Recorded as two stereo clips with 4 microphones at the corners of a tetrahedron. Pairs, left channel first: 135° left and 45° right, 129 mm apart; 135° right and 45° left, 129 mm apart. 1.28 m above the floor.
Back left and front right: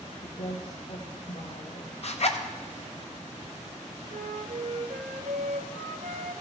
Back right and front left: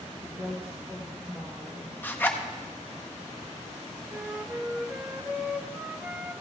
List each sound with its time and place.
0.2 s a woman speaking: 115° left, 1.4 m
2.0 s a zipper: 155° left, 0.8 m
4.1 s a flute: 35° right, 0.6 m